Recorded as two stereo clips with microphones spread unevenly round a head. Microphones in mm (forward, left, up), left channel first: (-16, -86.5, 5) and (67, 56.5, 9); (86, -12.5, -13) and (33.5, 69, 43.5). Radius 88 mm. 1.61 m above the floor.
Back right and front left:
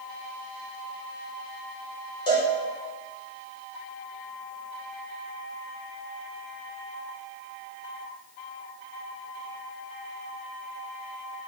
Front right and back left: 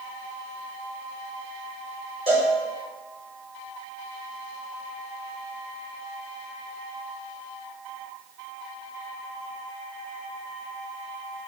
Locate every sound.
2.3 s a cowbell: 175° left, 4.5 m